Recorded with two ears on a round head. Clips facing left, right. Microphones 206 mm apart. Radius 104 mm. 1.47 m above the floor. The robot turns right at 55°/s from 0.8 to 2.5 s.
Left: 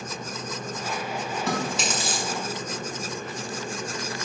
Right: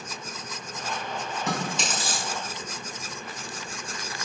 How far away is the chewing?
About 4 m.